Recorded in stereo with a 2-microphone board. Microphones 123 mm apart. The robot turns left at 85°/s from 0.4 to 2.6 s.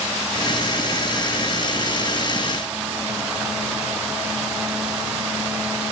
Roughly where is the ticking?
I don't hear ticking.